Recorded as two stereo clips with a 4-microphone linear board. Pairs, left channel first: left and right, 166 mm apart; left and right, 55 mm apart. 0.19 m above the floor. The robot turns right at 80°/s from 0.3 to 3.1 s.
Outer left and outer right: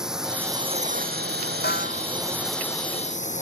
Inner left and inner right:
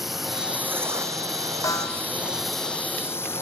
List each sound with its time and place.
0.0 s a drone: 175° right; by 3.4 s 45° left
1.6 s a snare drum: 90° left; by 2.0 s 125° left